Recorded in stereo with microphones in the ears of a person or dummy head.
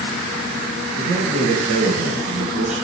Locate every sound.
1.0 s a man speaking: 50° right (ahead or behind), 1.6 m